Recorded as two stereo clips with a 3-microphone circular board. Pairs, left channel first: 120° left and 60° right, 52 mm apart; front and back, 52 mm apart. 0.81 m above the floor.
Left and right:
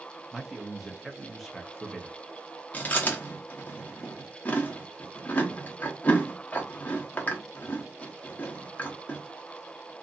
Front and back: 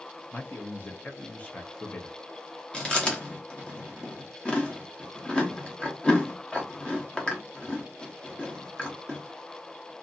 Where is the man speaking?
25° left, 0.6 m.